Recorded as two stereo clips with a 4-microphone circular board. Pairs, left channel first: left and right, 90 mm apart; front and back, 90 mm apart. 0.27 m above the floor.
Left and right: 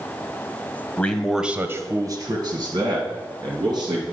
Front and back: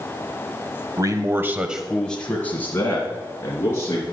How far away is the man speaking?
About 1.2 m.